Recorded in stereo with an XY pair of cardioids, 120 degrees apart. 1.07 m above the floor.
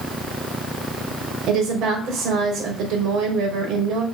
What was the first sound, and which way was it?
A woman speaking, 70° right.